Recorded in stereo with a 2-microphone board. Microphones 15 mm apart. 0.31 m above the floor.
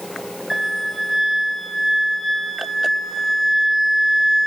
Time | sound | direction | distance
0.5 | a flute | 5° right (ahead or behind) | 0.5 m